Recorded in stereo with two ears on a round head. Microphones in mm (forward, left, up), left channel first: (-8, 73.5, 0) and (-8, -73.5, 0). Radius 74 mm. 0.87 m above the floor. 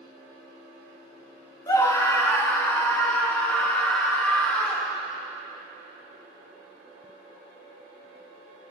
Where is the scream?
20° left (ahead or behind), 1.4 m; by 5.0 s 10° left (ahead or behind), 3 m.